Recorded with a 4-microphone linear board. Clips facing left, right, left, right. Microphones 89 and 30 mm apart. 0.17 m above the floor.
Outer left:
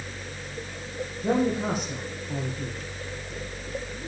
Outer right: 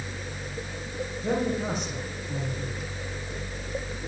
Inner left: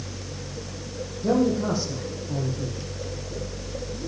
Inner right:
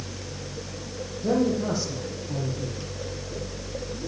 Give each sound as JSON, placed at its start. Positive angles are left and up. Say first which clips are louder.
{"t": 1.2, "sound": "a man speaking", "louder": "outer left 3 dB, inner left 2 dB", "side_deg": 10, "distance_m": 5.5}